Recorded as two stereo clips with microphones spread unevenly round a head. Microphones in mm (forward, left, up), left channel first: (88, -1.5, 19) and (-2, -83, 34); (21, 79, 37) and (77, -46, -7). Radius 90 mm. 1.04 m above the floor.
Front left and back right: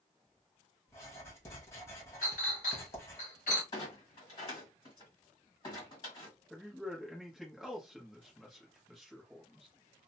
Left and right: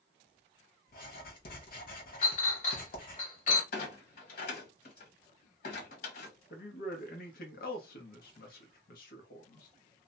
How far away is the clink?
About 1.2 m.